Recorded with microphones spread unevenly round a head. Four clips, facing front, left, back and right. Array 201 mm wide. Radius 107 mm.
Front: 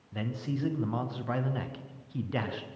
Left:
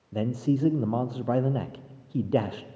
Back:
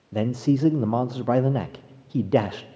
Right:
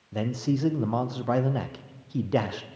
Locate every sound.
0.1 s a man speaking: 165° left, 0.7 m